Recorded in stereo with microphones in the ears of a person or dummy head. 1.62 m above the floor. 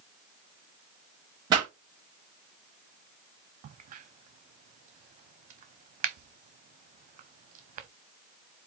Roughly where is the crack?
Right.